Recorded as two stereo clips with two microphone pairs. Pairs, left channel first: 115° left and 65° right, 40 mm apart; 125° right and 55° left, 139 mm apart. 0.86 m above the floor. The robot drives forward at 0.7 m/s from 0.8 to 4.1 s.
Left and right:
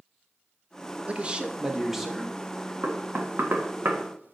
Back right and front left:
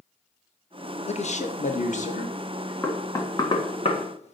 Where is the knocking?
55° right, 1.4 m; by 4.3 s 95° right, 1.2 m.